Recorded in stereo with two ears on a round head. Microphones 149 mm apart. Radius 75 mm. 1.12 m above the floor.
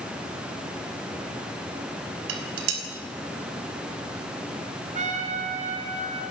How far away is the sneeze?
I don't hear a sneeze.